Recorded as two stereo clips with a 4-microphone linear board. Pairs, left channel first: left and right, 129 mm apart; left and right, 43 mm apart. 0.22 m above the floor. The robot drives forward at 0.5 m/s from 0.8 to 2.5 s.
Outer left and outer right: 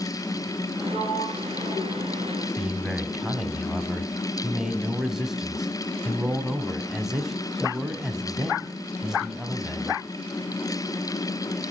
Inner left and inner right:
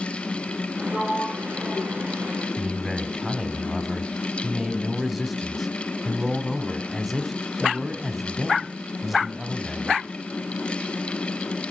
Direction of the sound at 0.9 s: 75° left (ahead or behind).